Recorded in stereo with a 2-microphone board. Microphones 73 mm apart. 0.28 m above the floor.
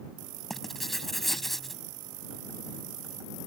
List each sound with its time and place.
0.5 s writing: 5° left (ahead or behind)